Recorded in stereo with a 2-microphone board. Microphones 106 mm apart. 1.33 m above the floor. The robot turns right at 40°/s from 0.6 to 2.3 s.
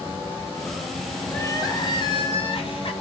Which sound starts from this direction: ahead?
Crying, at 1.3 s.